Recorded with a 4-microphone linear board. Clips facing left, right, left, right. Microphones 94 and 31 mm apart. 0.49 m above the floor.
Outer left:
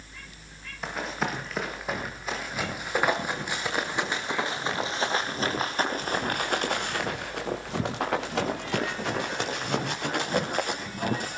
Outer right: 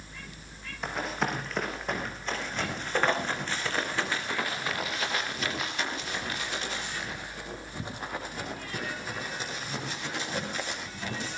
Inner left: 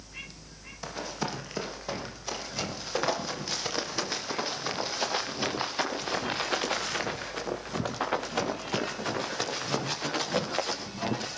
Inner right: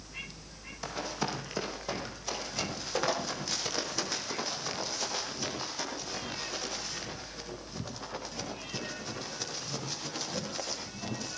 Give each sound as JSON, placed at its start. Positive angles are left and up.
{"t": 0.8, "sound": "running footsteps", "side_deg": 0, "distance_m": 7.0}